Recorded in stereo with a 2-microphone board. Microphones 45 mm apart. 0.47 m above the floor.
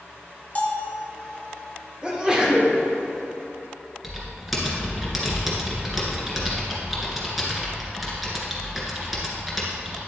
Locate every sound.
0.6 s a bell: 35° left (ahead or behind), 0.9 m
2.0 s a sneeze: 20° right (ahead or behind), 1.4 m
4.0 s typing on a keyboard: 5° right (ahead or behind), 1.8 m